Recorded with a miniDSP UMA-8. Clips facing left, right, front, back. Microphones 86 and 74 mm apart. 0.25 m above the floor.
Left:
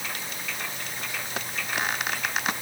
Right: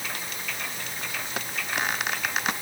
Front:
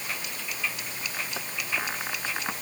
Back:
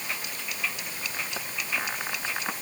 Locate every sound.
Only background noise.